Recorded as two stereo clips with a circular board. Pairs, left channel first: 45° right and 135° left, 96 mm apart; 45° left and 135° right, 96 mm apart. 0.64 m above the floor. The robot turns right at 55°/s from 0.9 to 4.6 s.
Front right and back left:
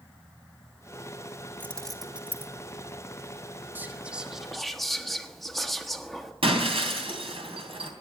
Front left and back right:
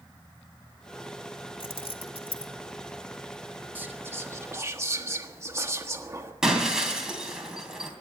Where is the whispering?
Straight behind, 1.3 m; by 6.3 s 130° right, 1.3 m.